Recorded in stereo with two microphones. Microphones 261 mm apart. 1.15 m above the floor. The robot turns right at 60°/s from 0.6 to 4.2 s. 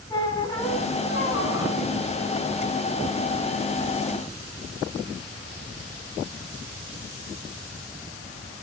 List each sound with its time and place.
0.1 s a squeak: 20° left, 2.5 m; by 1.8 s 90° left, 2.5 m